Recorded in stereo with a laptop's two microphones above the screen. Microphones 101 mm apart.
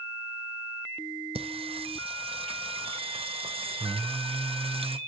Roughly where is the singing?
Right.